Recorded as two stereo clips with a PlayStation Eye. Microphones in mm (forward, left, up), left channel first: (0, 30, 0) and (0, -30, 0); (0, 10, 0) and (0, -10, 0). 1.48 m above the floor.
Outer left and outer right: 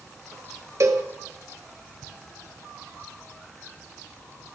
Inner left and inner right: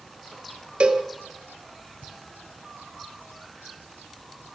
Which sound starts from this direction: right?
A cowbell, at 0.8 s.